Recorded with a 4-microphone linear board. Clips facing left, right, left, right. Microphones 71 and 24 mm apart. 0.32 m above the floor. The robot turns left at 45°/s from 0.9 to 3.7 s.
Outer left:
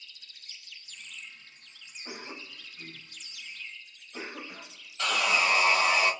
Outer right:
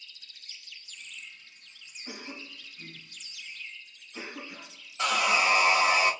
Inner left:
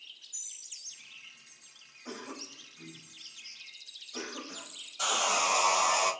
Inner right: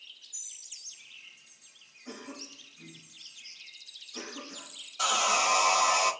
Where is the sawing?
20° right (ahead or behind), 0.7 m.